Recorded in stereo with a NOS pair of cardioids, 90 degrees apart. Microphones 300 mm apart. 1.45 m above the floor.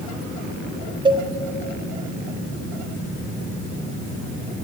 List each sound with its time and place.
1.1 s a cowbell: 15° right, 0.6 m